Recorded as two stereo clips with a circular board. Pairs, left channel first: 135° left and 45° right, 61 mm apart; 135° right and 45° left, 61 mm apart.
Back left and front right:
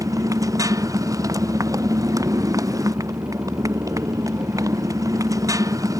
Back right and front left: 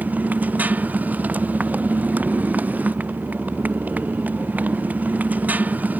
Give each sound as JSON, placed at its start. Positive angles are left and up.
{"t": 0.0, "sound": "a motorcycle", "azimuth_deg": -20}